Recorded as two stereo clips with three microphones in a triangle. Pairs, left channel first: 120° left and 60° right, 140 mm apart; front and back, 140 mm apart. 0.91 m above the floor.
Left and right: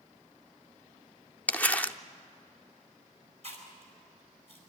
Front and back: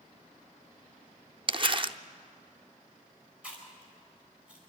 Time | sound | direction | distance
1.5 | crumpling | 165° right | 0.5 m
3.4 | chewing | 100° right | 4 m